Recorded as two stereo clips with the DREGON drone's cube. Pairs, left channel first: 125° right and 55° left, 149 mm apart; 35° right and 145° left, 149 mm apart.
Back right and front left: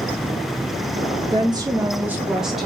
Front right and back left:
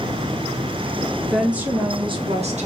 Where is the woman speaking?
55° left, 0.6 m; by 2.7 s 145° left, 0.8 m.